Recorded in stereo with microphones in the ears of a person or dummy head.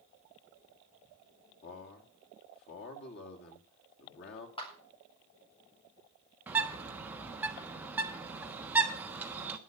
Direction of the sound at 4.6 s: 35° left (ahead or behind).